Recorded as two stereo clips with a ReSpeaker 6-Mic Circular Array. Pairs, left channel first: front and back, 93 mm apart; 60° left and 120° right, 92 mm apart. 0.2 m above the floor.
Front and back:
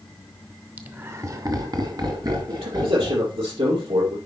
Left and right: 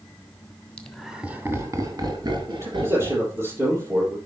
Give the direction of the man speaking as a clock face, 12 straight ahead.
6 o'clock.